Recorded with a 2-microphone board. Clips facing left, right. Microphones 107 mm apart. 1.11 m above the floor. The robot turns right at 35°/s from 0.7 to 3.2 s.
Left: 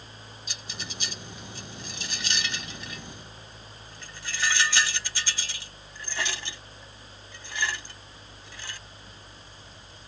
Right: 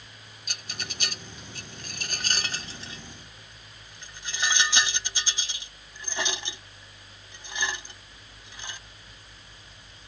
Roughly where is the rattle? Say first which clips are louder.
Right 2 dB; right.